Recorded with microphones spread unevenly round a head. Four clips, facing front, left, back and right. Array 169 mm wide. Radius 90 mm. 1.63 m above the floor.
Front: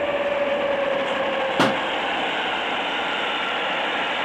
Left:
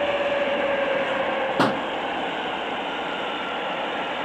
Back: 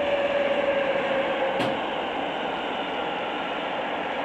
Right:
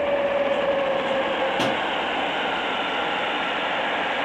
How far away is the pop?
About 0.9 m.